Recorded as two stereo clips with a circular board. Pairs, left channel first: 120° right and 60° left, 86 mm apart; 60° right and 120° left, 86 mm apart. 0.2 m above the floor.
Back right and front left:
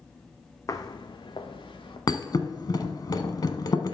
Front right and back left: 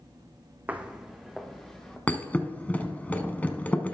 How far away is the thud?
About 0.8 m.